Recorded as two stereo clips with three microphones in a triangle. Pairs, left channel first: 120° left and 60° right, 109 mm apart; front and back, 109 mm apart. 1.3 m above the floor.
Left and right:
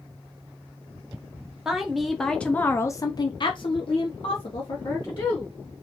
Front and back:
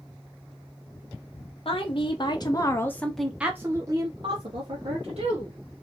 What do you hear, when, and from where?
1.6 s a woman speaking: 25° left, 1.2 m; by 5.5 s 160° left, 1.7 m